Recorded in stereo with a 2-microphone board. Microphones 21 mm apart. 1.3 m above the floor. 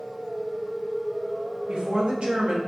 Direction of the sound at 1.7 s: 40° right (ahead or behind).